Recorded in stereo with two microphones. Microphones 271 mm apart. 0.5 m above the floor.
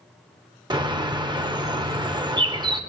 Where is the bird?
15° right (ahead or behind), 1.0 m.